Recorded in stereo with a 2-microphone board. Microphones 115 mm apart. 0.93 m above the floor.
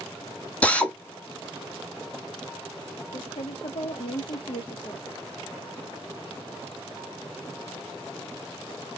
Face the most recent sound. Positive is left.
turn(degrees=60)  # may be behind; listen again after turning